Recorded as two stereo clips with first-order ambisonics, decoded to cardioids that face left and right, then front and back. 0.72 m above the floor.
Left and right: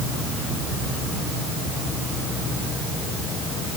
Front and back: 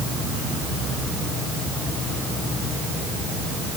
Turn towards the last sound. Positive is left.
No sound to turn to.